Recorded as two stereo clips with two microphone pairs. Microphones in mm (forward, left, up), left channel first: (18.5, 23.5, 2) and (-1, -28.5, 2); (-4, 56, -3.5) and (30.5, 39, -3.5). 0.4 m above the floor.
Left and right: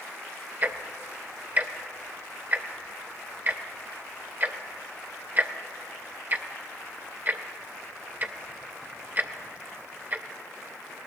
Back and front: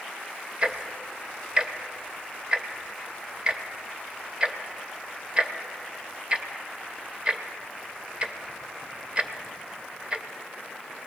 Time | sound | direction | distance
0.6 | ticking | 75° right | 0.7 m